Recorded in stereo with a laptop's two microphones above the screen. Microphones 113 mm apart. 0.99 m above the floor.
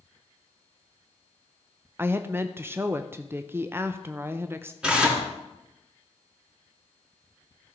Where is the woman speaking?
20° right (ahead or behind), 0.6 m.